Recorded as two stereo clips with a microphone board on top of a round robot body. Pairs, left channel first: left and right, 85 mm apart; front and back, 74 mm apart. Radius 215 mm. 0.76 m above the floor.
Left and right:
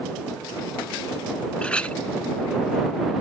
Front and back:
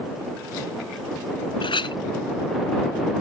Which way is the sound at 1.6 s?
10° left.